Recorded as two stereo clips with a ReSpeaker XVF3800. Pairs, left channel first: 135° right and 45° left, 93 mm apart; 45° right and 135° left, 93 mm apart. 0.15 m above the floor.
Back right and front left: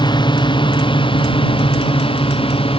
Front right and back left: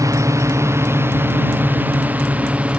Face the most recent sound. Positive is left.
turn(degrees=-150)